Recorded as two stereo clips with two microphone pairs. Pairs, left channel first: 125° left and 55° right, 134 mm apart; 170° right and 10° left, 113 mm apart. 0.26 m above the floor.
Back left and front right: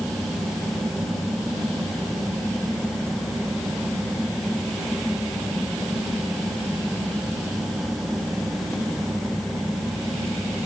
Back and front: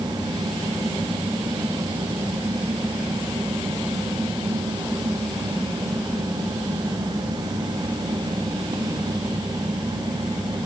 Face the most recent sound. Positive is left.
No sound to turn to.